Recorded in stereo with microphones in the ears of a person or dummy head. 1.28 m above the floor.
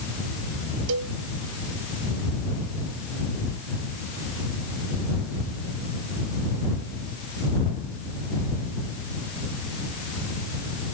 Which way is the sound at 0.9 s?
85° right.